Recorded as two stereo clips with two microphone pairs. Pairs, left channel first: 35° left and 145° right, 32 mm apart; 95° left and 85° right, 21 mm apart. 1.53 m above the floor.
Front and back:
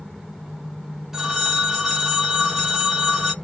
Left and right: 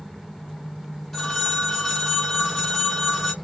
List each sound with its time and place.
1.1 s a phone ringing: 160° left, 0.8 m